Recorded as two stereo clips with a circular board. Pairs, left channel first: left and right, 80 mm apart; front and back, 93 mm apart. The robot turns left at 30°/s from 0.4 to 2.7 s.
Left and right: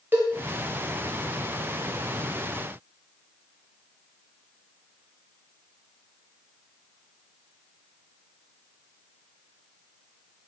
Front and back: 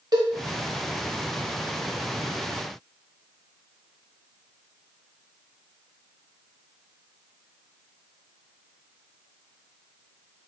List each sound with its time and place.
0.1 s a cowbell: 150° right, 0.7 m